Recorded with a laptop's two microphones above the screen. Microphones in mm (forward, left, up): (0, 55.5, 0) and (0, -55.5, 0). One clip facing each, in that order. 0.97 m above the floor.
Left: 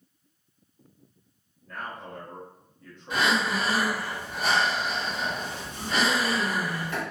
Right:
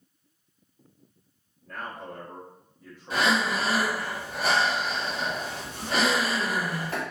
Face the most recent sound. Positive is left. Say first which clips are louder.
# right 1 dB
turn(degrees=-40)  # may be behind; listen again after turning